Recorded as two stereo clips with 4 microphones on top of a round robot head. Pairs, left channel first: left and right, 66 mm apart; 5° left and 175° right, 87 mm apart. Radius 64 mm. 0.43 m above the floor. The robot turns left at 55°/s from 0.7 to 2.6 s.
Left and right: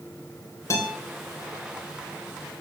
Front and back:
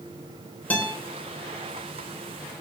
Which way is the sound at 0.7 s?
70° left.